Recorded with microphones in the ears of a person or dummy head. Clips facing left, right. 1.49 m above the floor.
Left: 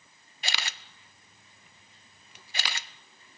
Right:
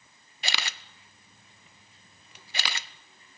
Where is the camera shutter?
65° right (ahead or behind), 0.7 m.